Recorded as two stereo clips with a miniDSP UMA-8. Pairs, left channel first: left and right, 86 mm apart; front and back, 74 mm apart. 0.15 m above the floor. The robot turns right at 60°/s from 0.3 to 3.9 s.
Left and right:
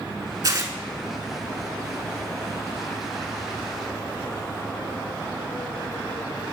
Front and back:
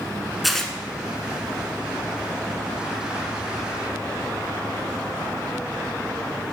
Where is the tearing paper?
90° right, 0.7 m; by 0.7 s 75° right, 0.7 m.